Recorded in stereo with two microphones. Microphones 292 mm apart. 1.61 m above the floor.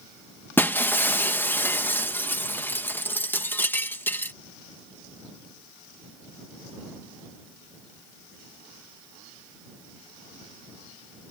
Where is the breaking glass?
5° left (ahead or behind).